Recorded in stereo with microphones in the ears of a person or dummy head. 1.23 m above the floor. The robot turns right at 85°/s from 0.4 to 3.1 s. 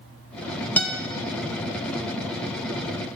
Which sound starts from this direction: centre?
A guitar, at 0.8 s.